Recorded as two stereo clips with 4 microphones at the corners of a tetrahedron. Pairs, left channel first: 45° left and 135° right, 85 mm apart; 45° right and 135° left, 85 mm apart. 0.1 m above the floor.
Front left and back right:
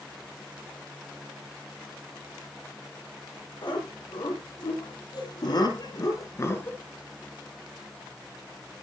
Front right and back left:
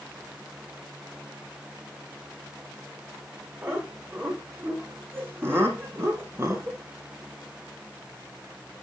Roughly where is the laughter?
Left.